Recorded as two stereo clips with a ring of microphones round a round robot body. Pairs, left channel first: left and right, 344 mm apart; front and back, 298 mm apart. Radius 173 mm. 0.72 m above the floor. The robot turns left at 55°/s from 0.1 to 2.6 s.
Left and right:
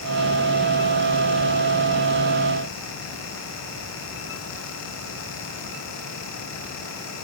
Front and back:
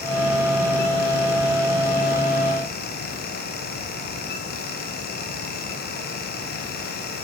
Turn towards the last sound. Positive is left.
No sound to turn to.